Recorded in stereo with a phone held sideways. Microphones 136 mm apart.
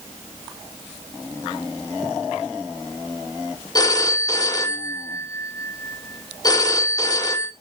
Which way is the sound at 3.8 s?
25° left (ahead or behind).